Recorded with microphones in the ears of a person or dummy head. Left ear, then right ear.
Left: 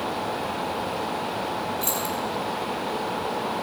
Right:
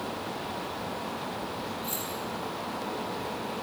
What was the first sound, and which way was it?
Keys jangling, 85° left.